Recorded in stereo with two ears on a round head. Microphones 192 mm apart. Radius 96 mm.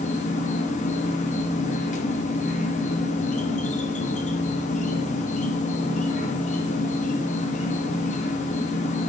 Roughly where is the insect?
Left.